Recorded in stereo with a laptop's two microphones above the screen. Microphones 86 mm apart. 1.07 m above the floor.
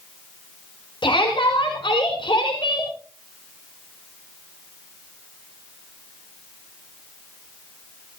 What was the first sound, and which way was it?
A shout, 80° left.